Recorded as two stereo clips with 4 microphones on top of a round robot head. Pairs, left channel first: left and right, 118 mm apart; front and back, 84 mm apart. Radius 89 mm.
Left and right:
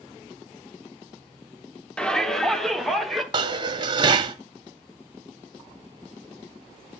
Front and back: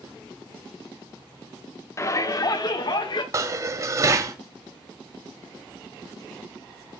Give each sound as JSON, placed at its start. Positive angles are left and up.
{"t": 2.0, "sound": "a shout", "azimuth_deg": 15, "distance_m": 1.1}
{"t": 3.3, "sound": "dishes clattering", "azimuth_deg": -135, "distance_m": 0.8}